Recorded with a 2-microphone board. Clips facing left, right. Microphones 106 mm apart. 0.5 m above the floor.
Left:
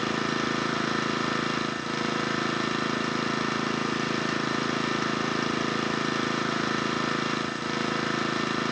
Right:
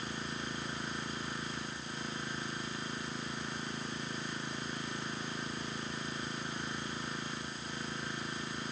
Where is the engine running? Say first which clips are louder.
Left 13 dB; 80° left.